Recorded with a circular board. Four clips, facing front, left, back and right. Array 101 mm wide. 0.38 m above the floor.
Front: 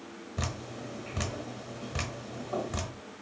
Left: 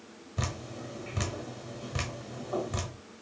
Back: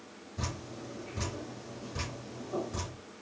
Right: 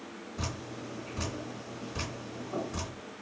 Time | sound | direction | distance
0.4 | dripping | 50° left | 1.1 m